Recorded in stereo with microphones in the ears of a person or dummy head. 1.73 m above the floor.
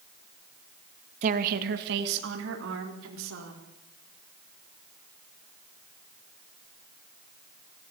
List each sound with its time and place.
1.2 s a woman speaking: 45° right (ahead or behind), 1.9 m; by 3.6 s 85° right, 5 m